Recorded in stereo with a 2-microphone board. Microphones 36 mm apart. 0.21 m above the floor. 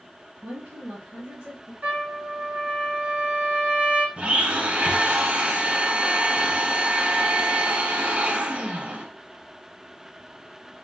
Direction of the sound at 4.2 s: 40° right (ahead or behind).